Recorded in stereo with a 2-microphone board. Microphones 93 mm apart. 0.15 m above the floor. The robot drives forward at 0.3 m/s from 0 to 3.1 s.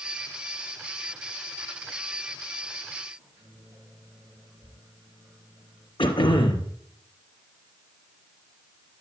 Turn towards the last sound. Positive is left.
turn(degrees=60)  # may be behind; listen again after turning